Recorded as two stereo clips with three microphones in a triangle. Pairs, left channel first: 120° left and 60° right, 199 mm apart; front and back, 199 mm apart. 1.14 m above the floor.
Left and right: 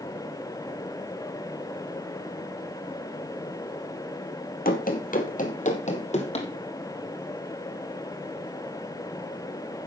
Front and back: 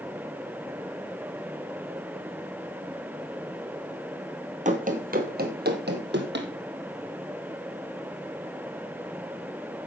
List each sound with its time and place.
4.7 s running footsteps: 140° left, 1.8 m; by 6.5 s 170° left, 2.5 m